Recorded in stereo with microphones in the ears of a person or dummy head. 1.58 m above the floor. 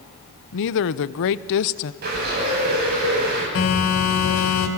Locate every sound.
0.5 s a woman speaking: 70° left (ahead or behind), 0.8 m
2.0 s a bird: 55° right (ahead or behind), 9 m
3.5 s a phone buzzing: 75° left (ahead or behind), 4 m